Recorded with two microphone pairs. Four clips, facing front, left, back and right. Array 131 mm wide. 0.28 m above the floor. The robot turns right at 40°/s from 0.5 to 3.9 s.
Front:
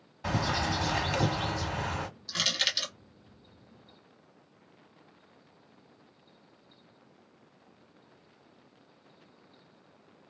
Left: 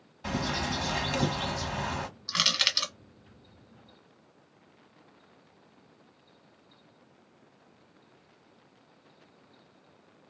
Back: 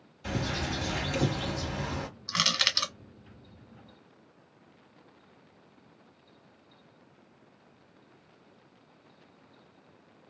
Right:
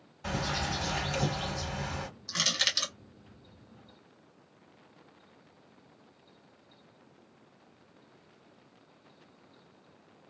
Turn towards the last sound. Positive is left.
turn(degrees=-155)